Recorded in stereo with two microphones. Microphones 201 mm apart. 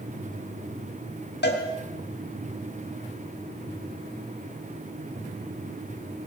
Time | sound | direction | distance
1.4 | a cowbell | 55° left (ahead or behind) | 3.5 m